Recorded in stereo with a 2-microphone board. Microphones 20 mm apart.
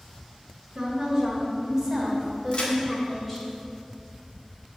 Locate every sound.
0.8 s a woman speaking: 30° right (ahead or behind), 3 m; by 3.5 s 10° left (ahead or behind), 3 m
2.5 s a crack: 50° left (ahead or behind), 2 m